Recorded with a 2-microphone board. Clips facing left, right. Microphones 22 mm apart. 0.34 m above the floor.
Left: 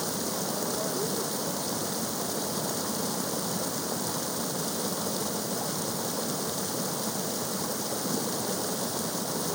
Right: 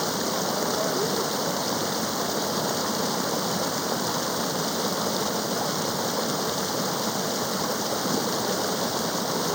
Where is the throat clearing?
I don't hear throat clearing.